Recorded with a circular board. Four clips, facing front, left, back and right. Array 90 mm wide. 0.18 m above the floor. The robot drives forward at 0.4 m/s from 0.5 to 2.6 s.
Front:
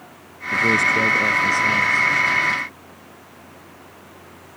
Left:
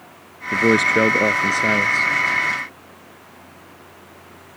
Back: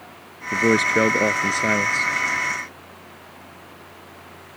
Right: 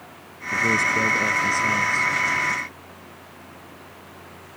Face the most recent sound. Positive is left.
turn(degrees=135)